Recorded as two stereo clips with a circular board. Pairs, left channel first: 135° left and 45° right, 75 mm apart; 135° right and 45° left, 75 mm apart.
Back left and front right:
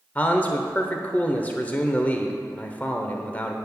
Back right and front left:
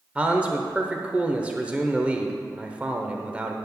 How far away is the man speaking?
About 0.9 m.